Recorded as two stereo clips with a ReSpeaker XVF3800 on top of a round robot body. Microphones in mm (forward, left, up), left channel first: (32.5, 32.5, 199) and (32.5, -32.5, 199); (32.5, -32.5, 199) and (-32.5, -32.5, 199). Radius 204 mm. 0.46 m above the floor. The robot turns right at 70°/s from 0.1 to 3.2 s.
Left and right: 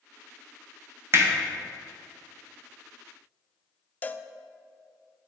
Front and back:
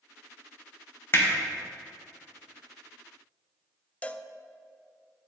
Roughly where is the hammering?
Ahead right.